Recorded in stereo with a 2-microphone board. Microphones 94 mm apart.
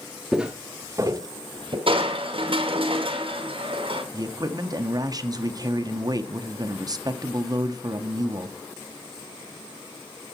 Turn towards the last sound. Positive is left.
turn(degrees=-40)  # may be behind; listen again after turning